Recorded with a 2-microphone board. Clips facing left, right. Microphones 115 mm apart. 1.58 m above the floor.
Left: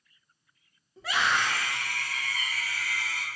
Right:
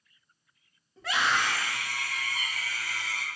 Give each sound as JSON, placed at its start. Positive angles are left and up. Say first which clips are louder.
{"t": 1.0, "sound": "a scream", "louder": "even", "side_deg": 5, "distance_m": 2.0}